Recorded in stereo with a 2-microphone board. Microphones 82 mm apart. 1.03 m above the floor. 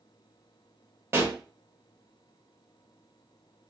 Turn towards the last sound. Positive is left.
turn(degrees=-30)  # may be behind; listen again after turning